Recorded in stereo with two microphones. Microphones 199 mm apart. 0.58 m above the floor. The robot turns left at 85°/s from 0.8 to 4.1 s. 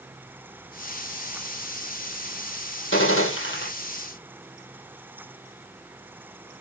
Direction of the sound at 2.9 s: 110° left.